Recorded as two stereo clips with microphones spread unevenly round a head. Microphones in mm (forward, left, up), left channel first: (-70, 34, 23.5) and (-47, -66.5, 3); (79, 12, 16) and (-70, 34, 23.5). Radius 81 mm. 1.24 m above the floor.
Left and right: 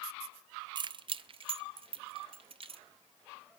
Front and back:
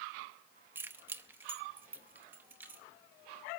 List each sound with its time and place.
0.8 s keys jangling: 120° right, 0.6 m; by 2.8 s 110° right, 1.8 m